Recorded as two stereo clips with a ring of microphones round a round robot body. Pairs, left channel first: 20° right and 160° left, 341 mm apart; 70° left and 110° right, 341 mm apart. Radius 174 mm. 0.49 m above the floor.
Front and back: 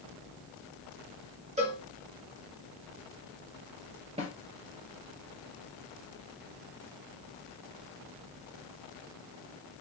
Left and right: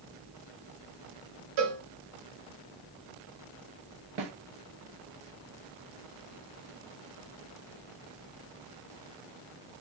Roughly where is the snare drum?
Behind right.